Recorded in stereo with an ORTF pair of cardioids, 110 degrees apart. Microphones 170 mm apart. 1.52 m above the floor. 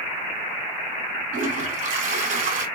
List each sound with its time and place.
1.3 s a toilet flushing: 55° right, 2.5 m